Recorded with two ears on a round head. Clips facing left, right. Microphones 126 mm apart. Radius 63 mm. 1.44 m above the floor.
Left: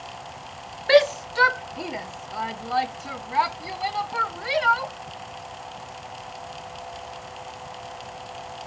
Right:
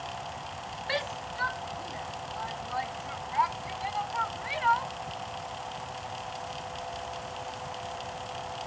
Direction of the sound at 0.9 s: 70° left (ahead or behind).